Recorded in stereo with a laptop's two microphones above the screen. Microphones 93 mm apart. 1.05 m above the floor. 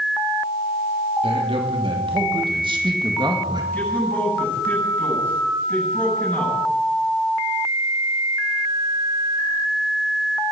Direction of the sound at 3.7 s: 15° left (ahead or behind).